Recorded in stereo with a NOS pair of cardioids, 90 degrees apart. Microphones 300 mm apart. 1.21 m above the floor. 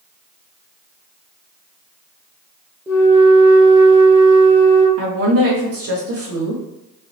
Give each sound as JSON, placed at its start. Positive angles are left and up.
{"t": 2.9, "sound": "a flute", "azimuth_deg": -5, "distance_m": 0.7}
{"t": 5.0, "sound": "a woman speaking", "azimuth_deg": -50, "distance_m": 1.1}